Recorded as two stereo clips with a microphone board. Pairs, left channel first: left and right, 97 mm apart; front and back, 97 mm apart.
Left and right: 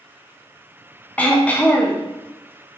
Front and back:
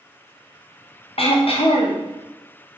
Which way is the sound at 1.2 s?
15° left.